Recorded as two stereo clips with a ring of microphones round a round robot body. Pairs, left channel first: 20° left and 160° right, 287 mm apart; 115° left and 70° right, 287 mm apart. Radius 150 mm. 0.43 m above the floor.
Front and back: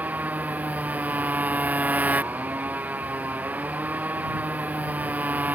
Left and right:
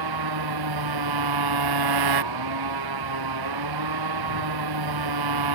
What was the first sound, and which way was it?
A motorcycle, 75° right.